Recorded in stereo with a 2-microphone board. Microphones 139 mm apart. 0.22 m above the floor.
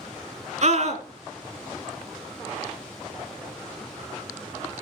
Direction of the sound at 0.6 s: 55° right (ahead or behind).